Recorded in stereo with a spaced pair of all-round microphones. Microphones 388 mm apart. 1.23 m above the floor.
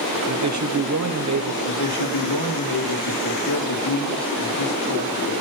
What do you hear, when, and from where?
0.3 s a man speaking: 50° right (ahead or behind), 0.7 m
1.6 s a man speaking: 75° left (ahead or behind), 1.6 m